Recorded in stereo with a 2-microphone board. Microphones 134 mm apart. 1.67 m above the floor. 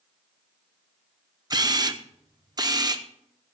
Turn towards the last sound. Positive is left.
turn(degrees=-30)  # may be behind; listen again after turning